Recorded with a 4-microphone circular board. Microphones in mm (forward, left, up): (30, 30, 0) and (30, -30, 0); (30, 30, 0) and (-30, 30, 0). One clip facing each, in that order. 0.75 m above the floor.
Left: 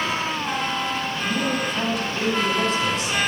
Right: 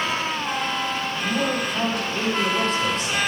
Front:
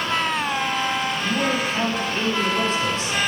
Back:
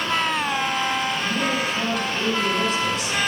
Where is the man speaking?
50° right, 3 m.